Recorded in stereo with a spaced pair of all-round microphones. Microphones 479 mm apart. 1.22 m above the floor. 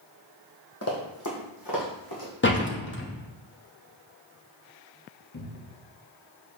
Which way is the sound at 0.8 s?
30° left (ahead or behind).